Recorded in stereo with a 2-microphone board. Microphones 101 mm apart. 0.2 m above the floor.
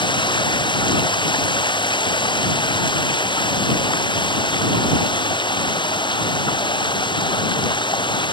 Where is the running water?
50° left (ahead or behind).